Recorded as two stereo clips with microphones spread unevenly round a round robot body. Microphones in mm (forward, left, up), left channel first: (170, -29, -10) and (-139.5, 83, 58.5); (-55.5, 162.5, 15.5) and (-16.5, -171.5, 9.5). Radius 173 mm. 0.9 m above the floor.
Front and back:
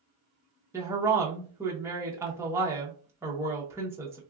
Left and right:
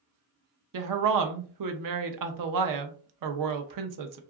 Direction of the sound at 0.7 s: 115° right.